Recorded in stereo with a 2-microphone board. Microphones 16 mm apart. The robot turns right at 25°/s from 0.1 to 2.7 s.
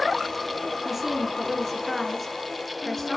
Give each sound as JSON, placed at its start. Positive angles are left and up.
{"t": 0.8, "sound": "a woman speaking", "azimuth_deg": -25, "distance_m": 3.0}